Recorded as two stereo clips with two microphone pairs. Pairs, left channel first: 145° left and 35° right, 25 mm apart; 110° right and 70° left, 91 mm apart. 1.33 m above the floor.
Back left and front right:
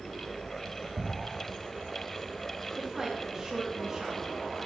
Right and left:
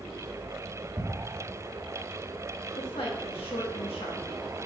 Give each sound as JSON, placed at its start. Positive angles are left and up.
{"t": 1.0, "sound": "ticking", "azimuth_deg": -160, "distance_m": 2.5}
{"t": 2.8, "sound": "a woman speaking", "azimuth_deg": -105, "distance_m": 1.6}